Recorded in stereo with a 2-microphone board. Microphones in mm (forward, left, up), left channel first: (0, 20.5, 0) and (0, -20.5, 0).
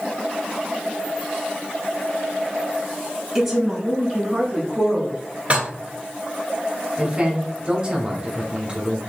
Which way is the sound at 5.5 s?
30° right (ahead or behind).